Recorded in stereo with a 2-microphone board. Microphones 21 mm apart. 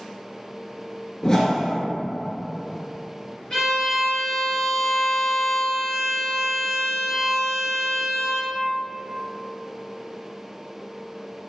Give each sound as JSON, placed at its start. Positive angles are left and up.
{"t": 1.2, "sound": "a whoosh", "side_deg": 30, "distance_m": 0.5}
{"t": 3.5, "sound": "a violin", "side_deg": 35, "distance_m": 2.0}